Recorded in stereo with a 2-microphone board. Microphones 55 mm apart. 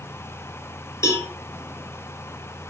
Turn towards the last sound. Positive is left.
turn(degrees=70)  # may be behind; listen again after turning